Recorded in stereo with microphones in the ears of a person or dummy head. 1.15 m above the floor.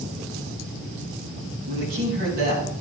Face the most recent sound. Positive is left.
turn(degrees=-65)  # may be behind; listen again after turning